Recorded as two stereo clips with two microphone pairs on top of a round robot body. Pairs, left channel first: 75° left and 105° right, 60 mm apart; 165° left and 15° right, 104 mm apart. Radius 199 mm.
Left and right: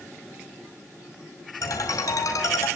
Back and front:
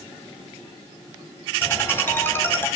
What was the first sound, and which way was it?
A ringtone, 95° left.